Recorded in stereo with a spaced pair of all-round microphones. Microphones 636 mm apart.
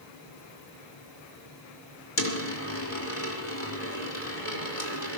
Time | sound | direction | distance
2.2 | a dropped coin | 55° left (ahead or behind) | 2 m